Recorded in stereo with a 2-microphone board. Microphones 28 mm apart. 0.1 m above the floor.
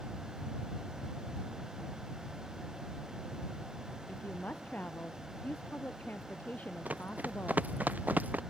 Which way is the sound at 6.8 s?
70° right (ahead or behind).